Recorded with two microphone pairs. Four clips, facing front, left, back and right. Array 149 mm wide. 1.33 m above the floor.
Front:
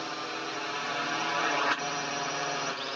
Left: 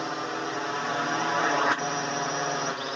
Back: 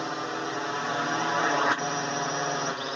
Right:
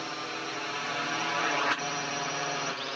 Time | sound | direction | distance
0.0 | a drone | 125° left | ?